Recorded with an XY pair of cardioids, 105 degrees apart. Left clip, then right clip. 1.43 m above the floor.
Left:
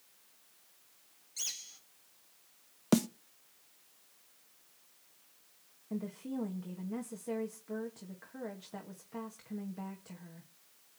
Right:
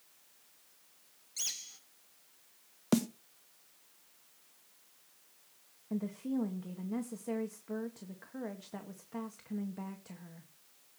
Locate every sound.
1.4 s a bird: 15° right, 1.8 m
2.9 s a snare drum: 15° left, 0.8 m
5.9 s a woman speaking: 10° right, 1.8 m